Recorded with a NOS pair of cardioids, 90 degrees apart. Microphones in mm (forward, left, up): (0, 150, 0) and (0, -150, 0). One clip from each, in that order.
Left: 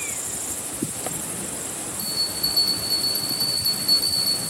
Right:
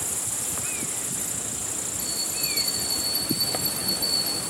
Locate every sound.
2.0 s a bell: 45° left, 7 m